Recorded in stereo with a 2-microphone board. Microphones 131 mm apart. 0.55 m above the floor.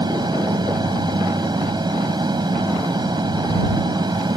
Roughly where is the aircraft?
Right.